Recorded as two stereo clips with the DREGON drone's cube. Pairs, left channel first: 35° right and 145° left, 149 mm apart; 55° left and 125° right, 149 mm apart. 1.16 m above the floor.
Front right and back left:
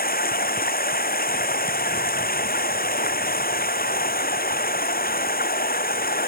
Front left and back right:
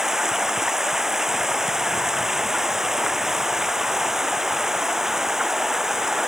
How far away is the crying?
No crying in this recording.